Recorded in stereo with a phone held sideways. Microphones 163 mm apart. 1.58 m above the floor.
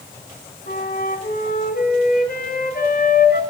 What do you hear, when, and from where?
0.7 s a flute: 70° left (ahead or behind), 4 m